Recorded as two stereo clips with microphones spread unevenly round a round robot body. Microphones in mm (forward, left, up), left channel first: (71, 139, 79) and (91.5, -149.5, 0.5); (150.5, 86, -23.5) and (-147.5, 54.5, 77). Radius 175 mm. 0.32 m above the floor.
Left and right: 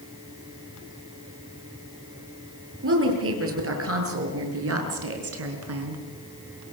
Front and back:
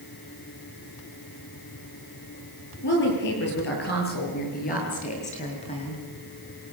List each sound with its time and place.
2.8 s a woman speaking: 45° right, 8 m; by 6.0 s 65° right, 4.5 m